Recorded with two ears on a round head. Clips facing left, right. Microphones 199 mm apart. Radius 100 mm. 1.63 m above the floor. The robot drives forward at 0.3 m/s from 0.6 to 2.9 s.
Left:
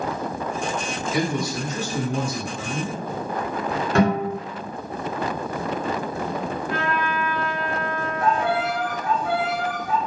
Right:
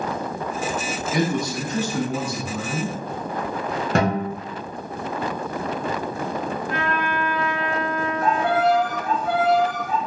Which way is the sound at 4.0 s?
30° right (ahead or behind).